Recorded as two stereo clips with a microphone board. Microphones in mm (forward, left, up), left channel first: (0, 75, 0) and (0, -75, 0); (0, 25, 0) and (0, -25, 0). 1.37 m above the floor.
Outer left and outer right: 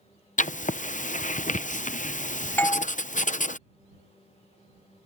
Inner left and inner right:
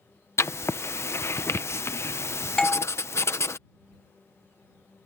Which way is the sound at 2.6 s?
10° left (ahead or behind).